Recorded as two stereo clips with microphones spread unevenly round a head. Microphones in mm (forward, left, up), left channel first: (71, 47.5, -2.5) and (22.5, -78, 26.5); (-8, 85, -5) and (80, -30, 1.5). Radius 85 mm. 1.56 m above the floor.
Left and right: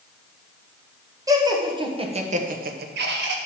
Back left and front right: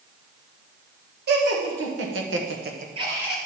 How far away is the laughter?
About 2 m.